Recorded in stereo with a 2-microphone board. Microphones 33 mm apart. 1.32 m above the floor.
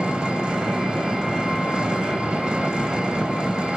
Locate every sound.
0.0 s an engine running: 25° right (ahead or behind), 2.5 m